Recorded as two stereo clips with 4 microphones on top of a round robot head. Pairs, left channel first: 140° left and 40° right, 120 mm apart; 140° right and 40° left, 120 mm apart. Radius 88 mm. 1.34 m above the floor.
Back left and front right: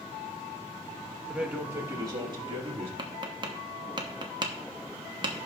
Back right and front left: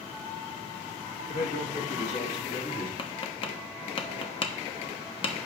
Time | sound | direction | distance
1.3 | a man speaking | 125° right | 1.4 m
3.0 | tapping | 90° right | 1.0 m